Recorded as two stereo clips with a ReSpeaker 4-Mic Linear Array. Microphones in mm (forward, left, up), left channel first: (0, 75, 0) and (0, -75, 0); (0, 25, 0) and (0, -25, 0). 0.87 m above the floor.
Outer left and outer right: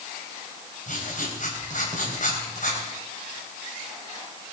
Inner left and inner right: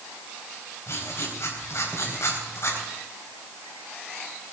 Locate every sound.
0.9 s writing: 60° left (ahead or behind), 3.5 m